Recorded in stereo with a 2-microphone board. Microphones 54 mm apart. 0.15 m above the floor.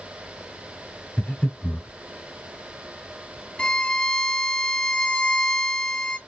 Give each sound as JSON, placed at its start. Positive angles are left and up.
{"t": 1.2, "sound": "breathing", "side_deg": 30, "distance_m": 1.4}
{"t": 3.6, "sound": "a violin", "side_deg": 20, "distance_m": 0.7}